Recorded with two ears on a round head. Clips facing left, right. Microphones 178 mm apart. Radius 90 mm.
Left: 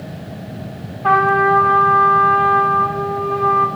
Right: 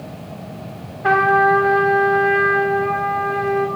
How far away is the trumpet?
About 6.5 m.